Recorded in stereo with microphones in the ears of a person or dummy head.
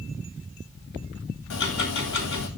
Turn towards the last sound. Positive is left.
turn(degrees=65)  # may be behind; listen again after turning